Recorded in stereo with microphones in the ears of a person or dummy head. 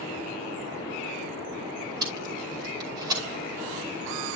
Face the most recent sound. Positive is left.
turn(degrees=-20)  # may be behind; listen again after turning